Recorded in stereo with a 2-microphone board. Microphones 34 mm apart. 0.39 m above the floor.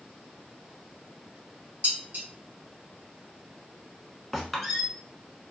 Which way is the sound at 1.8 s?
55° right (ahead or behind).